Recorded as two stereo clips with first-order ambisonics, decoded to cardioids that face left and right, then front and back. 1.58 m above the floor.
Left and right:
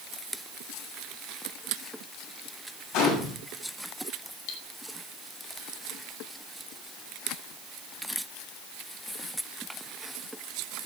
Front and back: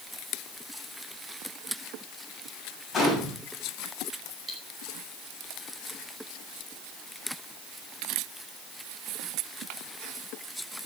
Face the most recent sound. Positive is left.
turn(degrees=105)